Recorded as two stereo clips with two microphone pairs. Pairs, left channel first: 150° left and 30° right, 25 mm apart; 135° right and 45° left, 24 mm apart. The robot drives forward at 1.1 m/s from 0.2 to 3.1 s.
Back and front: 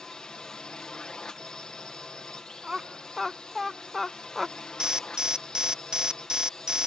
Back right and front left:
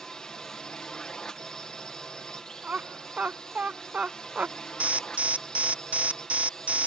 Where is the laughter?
35° left; by 4.6 s 60° left.